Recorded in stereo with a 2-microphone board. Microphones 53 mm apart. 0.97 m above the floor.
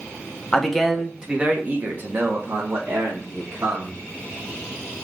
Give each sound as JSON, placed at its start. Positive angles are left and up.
{"t": 0.5, "sound": "a man speaking", "side_deg": 10, "distance_m": 0.8}